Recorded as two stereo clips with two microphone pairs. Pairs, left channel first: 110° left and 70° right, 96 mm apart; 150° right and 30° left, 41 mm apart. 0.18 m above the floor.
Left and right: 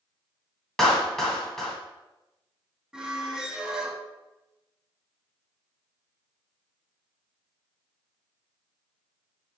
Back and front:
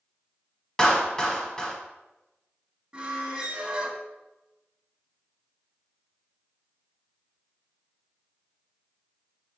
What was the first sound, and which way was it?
A clap, 175° right.